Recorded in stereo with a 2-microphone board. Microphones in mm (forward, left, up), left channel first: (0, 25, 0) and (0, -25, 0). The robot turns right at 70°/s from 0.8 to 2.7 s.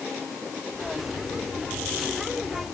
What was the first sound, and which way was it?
Only background noise.